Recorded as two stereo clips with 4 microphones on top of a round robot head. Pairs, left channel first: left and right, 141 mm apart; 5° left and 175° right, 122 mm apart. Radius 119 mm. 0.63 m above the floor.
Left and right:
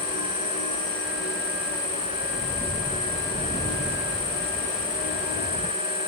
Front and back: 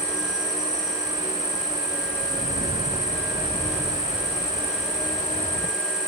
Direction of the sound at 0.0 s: 120° left.